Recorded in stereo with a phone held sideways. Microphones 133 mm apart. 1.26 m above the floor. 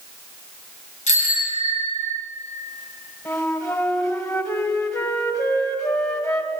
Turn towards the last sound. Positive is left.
turn(degrees=25)  # may be behind; listen again after turning